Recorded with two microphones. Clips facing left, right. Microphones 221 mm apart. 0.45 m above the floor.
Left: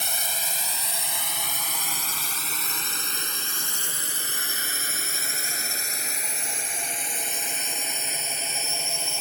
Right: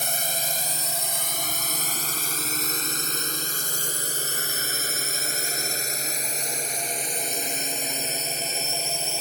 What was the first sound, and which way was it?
A drone, 45° right (ahead or behind).